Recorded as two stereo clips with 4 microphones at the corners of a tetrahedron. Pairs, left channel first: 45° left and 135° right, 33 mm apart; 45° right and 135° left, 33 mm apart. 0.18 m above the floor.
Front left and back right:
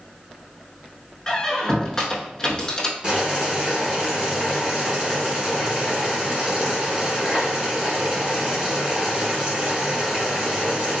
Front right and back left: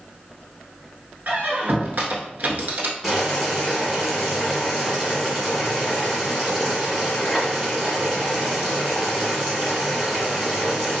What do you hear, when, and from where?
1.3 s a squeak: 110° left, 0.6 m
3.0 s boiling: 160° right, 1.1 m